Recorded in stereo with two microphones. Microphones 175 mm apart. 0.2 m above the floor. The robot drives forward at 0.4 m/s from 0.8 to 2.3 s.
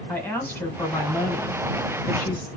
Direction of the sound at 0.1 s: 10° left (ahead or behind).